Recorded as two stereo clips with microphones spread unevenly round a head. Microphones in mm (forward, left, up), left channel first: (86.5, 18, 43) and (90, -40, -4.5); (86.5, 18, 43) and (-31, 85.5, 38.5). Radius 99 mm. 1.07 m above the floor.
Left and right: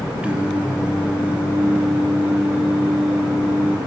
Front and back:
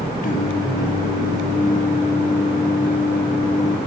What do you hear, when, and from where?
0.2 s singing: 5° right, 0.6 m